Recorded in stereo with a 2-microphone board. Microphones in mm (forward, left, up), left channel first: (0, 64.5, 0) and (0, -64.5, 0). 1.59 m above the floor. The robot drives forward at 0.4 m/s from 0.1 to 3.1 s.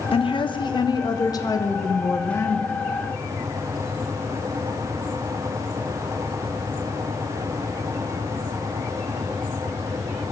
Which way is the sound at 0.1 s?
45° left (ahead or behind).